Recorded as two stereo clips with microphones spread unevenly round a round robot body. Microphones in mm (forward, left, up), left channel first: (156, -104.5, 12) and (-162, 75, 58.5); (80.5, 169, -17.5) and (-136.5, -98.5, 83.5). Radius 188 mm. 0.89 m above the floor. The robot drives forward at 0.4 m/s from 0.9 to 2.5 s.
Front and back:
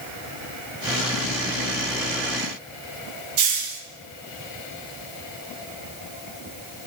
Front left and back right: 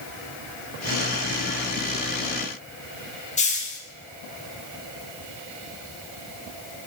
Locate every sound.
3.4 s a hiss: 115° left, 1.0 m